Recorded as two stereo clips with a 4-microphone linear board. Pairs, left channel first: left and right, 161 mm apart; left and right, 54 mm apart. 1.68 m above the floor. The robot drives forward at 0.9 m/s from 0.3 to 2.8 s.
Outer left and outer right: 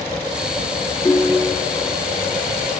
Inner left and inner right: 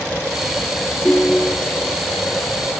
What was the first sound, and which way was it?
A ringtone, 15° left (ahead or behind).